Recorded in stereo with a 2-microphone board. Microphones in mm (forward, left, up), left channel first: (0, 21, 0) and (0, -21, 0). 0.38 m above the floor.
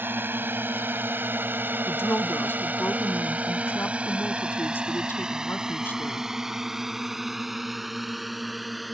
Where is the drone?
60° right (ahead or behind); by 8.9 s centre (ahead or behind).